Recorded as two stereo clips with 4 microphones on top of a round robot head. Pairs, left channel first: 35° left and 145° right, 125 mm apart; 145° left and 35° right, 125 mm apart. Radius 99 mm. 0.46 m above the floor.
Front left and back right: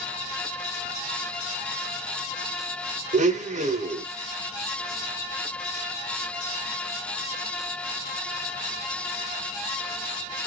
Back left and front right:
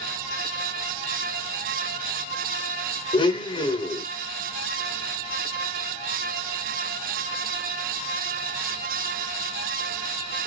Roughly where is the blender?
Behind.